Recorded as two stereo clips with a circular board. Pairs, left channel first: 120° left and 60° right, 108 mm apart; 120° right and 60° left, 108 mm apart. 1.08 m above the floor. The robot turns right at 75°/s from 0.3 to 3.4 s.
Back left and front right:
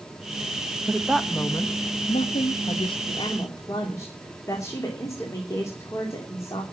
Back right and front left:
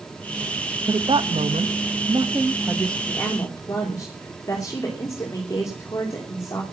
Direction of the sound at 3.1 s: 155° left.